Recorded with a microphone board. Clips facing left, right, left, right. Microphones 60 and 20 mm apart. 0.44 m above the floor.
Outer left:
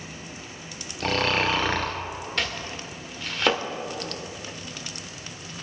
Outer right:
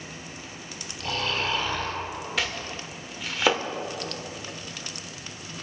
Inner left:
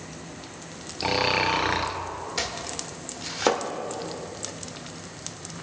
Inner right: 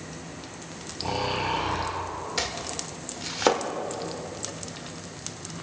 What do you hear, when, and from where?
1.0 s snoring: 80° left, 1.6 m
2.4 s chopping: 5° right (ahead or behind), 1.2 m